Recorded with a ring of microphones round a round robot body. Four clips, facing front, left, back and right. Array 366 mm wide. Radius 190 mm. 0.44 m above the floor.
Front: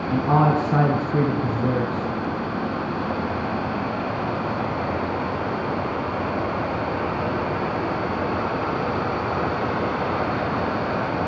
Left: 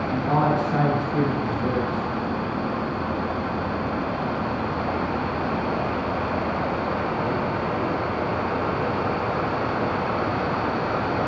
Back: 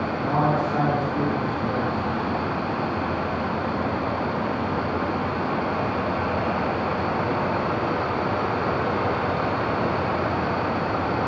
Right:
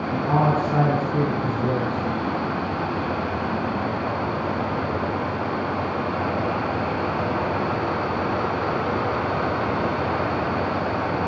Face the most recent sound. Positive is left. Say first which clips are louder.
# right 1 dB, front 5 dB
turn(degrees=-5)